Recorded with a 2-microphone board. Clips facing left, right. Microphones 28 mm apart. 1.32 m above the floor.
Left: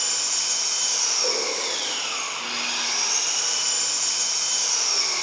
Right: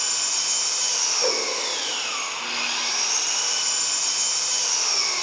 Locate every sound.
0.0 s an engine running: 5° right (ahead or behind), 3.5 m
1.2 s a whoosh: 65° right (ahead or behind), 1.2 m